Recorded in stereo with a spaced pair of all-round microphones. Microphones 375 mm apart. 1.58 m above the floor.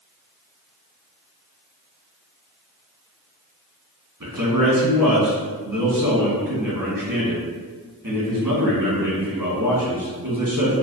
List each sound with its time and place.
4.2 s a man speaking: 60° right (ahead or behind), 1.3 m